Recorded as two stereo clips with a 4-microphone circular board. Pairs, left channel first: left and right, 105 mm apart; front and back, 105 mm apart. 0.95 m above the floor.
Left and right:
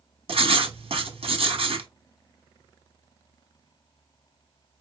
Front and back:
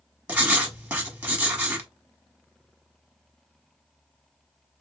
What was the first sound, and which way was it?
Writing, 105° right.